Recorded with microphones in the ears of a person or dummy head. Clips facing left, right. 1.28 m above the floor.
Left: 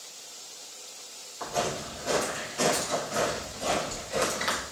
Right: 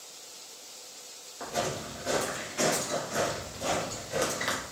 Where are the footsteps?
30° right (ahead or behind), 1.5 m; by 4.6 s centre (ahead or behind), 1.5 m.